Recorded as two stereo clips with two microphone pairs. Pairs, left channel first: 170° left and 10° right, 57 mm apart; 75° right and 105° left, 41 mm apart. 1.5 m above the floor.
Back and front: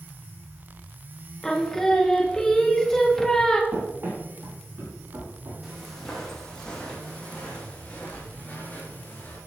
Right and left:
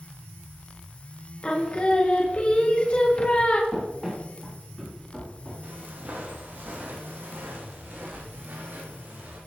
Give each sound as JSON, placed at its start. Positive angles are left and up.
{"t": 1.4, "sound": "singing", "azimuth_deg": -115, "distance_m": 1.1}
{"t": 3.7, "sound": "running footsteps", "azimuth_deg": 25, "distance_m": 3.0}
{"t": 5.6, "sound": "footsteps", "azimuth_deg": 85, "distance_m": 2.5}